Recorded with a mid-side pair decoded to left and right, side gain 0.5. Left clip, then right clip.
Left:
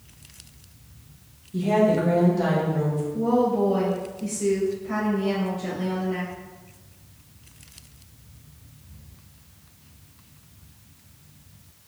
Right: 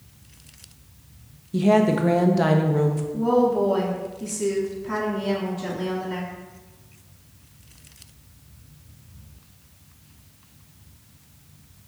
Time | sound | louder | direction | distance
1.5 | a woman speaking | right 1 dB | 55° right | 0.6 m
3.1 | a woman speaking | right 2 dB | 60° right | 1.9 m